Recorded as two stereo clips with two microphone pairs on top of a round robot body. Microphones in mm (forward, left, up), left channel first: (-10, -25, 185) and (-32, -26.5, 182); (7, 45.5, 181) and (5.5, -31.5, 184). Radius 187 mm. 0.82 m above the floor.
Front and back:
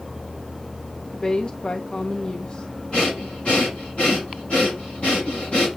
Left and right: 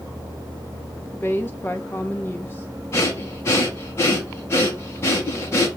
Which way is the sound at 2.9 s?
30° left.